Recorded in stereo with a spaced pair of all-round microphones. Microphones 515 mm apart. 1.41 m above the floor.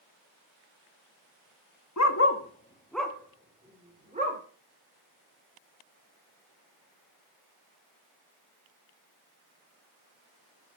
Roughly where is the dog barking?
Left.